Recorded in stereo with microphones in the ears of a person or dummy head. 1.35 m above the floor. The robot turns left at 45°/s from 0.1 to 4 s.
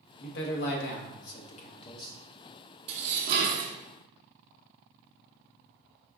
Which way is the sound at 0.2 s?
110° left.